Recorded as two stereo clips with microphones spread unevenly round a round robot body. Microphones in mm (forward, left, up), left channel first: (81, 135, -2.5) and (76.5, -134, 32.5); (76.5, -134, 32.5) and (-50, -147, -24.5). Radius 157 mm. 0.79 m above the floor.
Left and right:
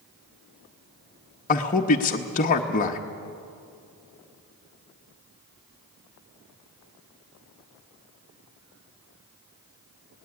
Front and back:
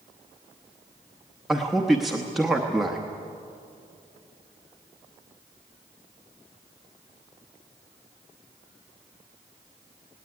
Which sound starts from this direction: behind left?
A man speaking, at 1.5 s.